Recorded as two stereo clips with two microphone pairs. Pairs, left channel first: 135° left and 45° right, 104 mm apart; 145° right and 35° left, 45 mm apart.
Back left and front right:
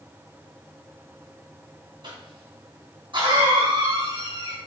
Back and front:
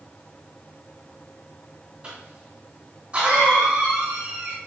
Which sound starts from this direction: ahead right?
A cough, at 2.0 s.